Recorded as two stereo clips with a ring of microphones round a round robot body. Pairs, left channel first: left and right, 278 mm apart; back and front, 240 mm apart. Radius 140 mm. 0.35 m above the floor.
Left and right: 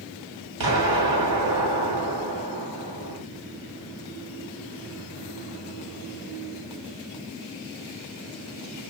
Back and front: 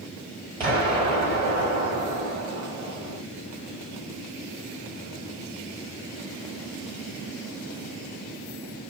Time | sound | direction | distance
0.6 | an explosion | 65° right | 2 m